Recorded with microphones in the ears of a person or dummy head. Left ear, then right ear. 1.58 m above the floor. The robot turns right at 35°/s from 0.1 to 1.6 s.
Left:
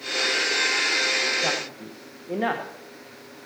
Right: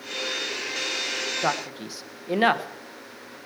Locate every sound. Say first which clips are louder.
1.4 s a man speaking: even; 70° right (ahead or behind), 1.2 m; by 2.7 s 65° right (ahead or behind), 1.2 m